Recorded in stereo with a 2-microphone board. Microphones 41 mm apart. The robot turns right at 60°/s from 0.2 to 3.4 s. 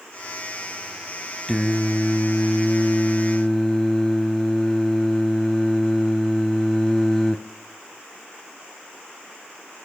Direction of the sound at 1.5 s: 10° left (ahead or behind).